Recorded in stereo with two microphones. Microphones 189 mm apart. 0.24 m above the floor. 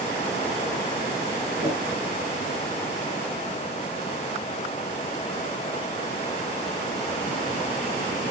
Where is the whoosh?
50° left (ahead or behind), 3.5 m.